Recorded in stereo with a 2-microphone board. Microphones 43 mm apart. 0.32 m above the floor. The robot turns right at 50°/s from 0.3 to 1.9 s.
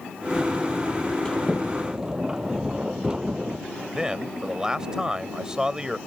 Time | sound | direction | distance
1.2 | a sliding door | 165° left | ?
4.0 | a man speaking | 15° right (ahead or behind) | ?